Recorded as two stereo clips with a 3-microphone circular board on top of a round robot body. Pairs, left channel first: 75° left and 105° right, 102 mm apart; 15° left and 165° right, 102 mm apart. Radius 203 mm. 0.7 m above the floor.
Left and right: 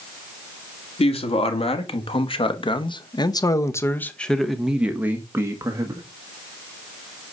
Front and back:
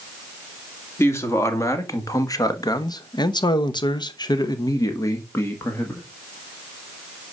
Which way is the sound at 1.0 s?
80° left.